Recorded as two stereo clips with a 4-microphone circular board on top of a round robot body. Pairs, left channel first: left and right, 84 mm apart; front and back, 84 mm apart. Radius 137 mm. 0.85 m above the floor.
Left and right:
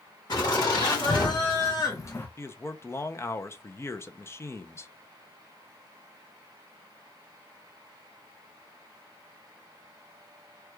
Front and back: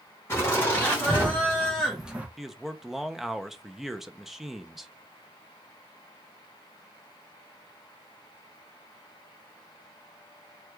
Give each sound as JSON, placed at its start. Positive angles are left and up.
{"t": 0.3, "sound": "laughter", "azimuth_deg": 60, "distance_m": 2.0}
{"t": 2.4, "sound": "a man speaking", "azimuth_deg": 95, "distance_m": 0.6}